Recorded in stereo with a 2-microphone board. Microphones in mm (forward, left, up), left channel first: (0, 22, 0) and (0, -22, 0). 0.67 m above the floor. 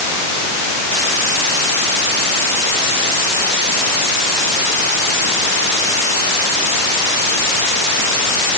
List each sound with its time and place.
Only background noise.